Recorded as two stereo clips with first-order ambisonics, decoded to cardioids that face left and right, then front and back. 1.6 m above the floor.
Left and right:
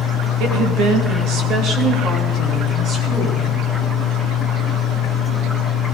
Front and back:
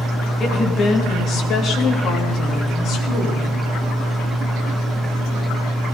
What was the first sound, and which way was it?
A woman speaking, 65° right.